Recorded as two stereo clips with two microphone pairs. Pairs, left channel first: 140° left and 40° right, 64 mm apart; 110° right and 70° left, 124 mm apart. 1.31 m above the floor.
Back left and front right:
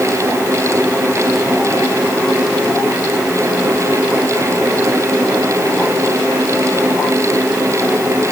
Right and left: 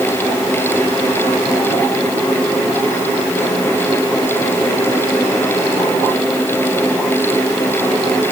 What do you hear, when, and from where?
Only background noise.